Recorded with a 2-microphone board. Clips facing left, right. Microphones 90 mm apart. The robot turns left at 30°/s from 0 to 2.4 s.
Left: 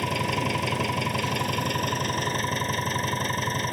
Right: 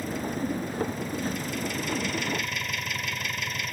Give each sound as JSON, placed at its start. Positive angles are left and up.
{"t": 0.0, "sound": "an engine running", "azimuth_deg": 110}